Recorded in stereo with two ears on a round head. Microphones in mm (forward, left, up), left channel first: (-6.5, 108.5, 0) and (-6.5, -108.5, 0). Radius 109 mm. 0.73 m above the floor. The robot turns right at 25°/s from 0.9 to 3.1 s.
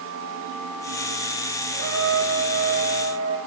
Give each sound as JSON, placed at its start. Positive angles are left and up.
{"t": 1.7, "sound": "a trumpet", "azimuth_deg": -115, "distance_m": 4.5}